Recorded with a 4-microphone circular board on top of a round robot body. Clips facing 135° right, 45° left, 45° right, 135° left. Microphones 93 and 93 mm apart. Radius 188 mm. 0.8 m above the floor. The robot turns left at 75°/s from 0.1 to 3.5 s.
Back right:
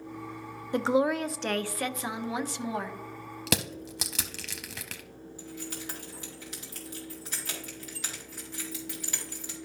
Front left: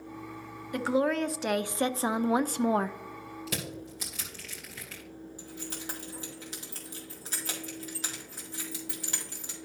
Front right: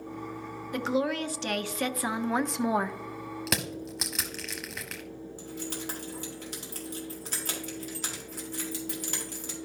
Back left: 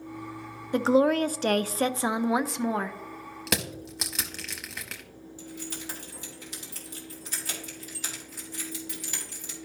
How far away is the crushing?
About 0.6 m.